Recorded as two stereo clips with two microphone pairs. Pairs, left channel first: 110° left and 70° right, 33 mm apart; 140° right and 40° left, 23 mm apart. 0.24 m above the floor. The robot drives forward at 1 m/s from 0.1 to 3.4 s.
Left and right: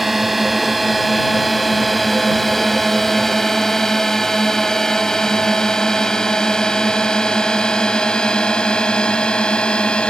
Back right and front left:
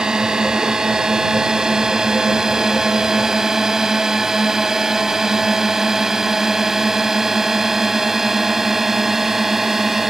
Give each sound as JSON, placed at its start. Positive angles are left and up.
{"t": 0.0, "sound": "a drone", "azimuth_deg": 10}